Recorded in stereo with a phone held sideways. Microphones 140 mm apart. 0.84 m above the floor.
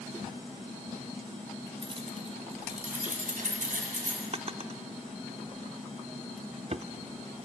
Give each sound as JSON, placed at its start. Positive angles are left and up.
{"t": 1.8, "sound": "keys jangling", "side_deg": -35, "distance_m": 2.0}
{"t": 4.3, "sound": "a drawer", "side_deg": -45, "distance_m": 0.5}